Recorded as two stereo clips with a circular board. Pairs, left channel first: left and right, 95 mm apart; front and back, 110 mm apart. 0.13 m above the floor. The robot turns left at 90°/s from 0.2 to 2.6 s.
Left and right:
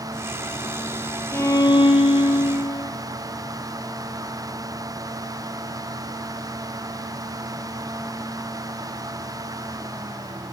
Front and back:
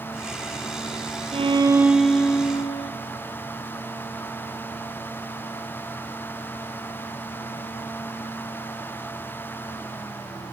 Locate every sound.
1.3 s a violin: 155° left, 0.5 m; by 2.9 s 40° left, 0.5 m